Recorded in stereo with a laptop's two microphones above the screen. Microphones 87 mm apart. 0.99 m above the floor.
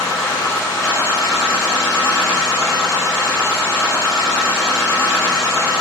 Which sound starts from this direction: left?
A machine running, at 0.0 s.